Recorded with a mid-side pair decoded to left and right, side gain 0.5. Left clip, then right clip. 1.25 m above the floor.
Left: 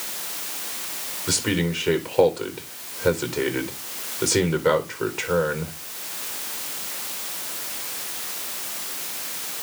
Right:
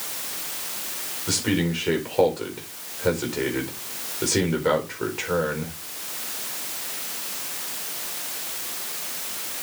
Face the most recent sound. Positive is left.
turn(degrees=10)